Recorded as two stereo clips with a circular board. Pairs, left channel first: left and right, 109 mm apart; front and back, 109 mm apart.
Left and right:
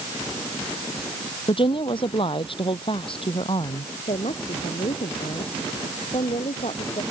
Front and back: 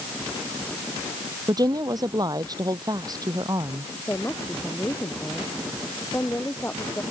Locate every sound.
1.5 s a woman speaking: 125° left
4.1 s a woman speaking: 70° left